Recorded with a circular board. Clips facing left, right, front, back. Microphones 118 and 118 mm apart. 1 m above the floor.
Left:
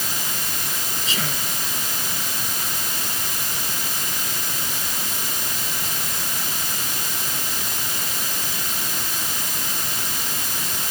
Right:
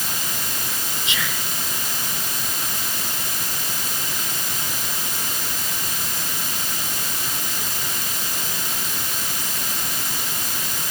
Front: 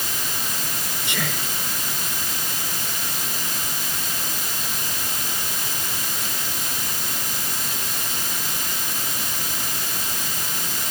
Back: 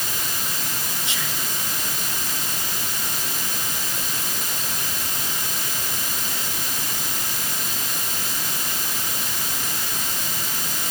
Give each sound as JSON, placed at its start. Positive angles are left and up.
{"t": 1.1, "sound": "whispering", "azimuth_deg": 35}